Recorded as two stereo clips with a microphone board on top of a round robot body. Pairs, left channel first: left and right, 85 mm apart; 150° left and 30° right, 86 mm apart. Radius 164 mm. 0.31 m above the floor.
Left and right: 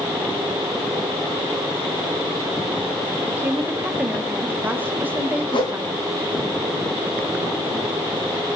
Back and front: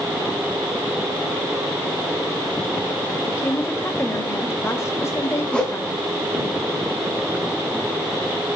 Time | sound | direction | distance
3.3 | a woman speaking | 155° right | 1.6 m
5.5 | a whoosh | 70° left | 2.5 m